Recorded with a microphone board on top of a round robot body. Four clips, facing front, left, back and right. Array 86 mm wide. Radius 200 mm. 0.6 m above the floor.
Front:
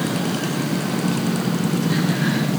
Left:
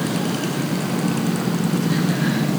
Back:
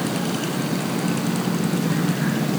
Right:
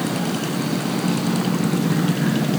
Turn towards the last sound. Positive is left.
No sound to turn to.